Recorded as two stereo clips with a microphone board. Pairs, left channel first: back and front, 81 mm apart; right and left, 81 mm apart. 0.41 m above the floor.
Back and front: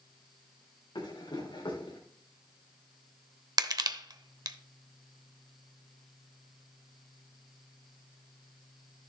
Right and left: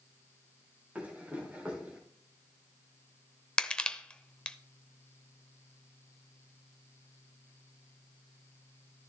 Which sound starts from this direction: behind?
Running footsteps, at 0.9 s.